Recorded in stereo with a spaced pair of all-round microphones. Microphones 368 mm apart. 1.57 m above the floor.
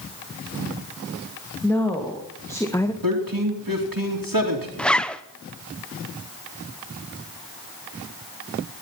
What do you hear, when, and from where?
1.6 s a woman speaking: 5° left (ahead or behind), 2.5 m; by 2.9 s 10° left (ahead or behind), 1.0 m
3.0 s a man speaking: 65° right (ahead or behind), 3 m
4.8 s a zipper: 5° left (ahead or behind), 0.7 m